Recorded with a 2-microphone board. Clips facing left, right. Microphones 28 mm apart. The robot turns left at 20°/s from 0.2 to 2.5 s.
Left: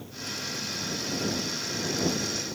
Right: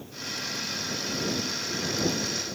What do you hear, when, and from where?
Only background noise.